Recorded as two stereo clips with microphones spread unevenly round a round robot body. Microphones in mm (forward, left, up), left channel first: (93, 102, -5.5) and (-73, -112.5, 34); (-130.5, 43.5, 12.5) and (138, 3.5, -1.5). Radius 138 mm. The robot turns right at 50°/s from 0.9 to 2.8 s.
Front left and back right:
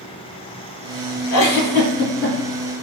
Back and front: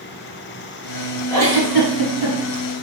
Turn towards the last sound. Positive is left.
turn(degrees=165)